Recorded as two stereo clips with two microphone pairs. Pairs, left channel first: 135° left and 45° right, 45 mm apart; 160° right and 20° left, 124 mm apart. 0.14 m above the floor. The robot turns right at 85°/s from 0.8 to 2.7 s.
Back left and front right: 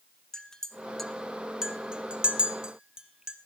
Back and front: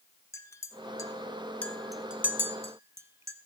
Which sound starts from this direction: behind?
A clink, at 0.3 s.